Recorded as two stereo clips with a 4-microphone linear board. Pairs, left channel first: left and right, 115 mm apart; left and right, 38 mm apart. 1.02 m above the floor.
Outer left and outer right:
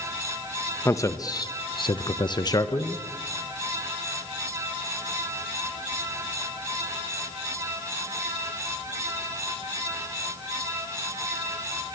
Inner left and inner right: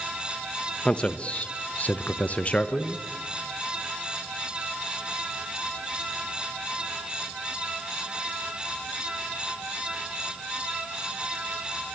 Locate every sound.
0.8 s a man speaking: 25° left (ahead or behind), 1.3 m